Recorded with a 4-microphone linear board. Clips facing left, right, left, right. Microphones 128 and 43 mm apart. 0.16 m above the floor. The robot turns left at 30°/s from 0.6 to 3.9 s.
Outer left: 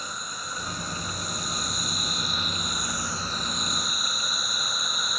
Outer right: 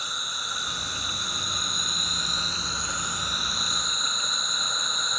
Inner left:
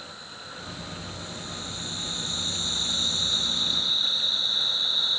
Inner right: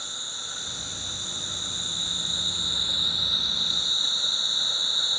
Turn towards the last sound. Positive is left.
turn(degrees=175)